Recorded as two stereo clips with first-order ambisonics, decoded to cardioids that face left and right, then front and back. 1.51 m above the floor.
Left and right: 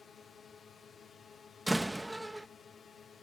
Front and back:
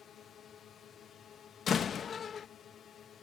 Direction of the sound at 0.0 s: 35° left.